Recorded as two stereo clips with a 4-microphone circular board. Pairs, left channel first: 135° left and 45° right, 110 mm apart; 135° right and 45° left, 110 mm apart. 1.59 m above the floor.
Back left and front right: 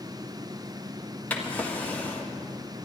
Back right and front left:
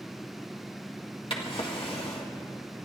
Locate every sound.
1.3 s a drawer: 155° right, 1.6 m